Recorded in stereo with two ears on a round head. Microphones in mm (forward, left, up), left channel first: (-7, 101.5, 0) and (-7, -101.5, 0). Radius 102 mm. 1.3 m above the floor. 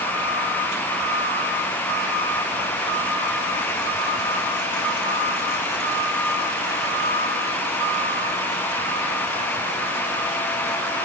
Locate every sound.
Only background noise.